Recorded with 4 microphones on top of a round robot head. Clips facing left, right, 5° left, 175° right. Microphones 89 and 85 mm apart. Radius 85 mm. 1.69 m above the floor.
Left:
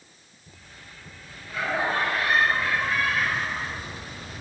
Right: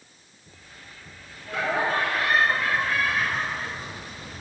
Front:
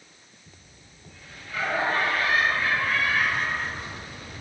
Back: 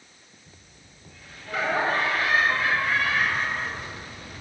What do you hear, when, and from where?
1.5 s laughter: 135° right, 6 m; by 3.9 s 150° right, 6 m